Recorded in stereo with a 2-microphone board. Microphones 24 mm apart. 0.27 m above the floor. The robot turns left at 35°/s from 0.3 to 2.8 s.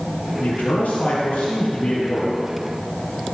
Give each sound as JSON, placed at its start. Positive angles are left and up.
{"t": 0.4, "sound": "a man speaking", "azimuth_deg": 110, "distance_m": 3.5}